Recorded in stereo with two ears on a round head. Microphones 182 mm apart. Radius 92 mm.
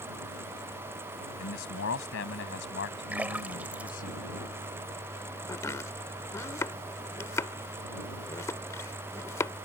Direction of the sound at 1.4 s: 70° left (ahead or behind).